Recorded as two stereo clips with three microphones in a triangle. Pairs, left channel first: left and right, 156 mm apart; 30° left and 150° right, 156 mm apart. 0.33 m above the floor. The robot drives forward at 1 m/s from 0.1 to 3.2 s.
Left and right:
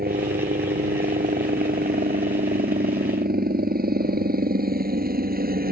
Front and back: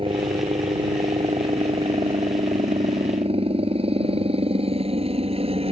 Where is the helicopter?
95° right; by 5.7 s 100° right.